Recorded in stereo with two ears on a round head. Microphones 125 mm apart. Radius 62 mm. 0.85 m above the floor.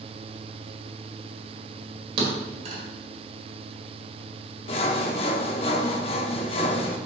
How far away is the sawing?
About 0.7 m.